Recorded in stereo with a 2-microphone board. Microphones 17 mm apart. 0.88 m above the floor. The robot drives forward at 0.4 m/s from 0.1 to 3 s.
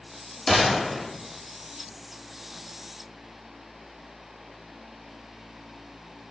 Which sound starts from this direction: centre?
A gunshot, at 0.5 s.